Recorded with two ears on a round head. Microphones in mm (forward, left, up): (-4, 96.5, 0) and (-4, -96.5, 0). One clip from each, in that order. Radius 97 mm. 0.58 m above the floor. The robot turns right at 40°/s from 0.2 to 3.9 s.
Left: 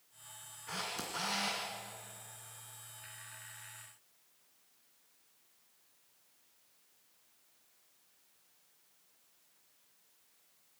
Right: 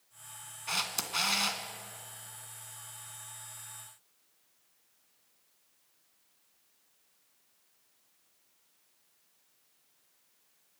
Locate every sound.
0.7 s a camera shutter: 90° right, 2 m; by 1.6 s 55° right, 2 m